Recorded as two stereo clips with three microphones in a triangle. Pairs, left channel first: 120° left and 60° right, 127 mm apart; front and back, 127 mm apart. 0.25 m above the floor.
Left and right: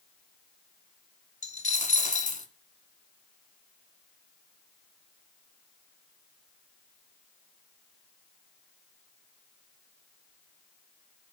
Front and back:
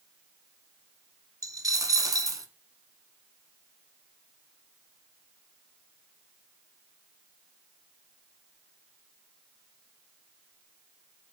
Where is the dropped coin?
115° left, 0.7 m.